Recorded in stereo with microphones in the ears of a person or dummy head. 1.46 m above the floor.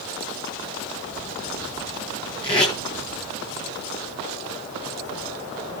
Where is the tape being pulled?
30° left (ahead or behind), 8.5 m.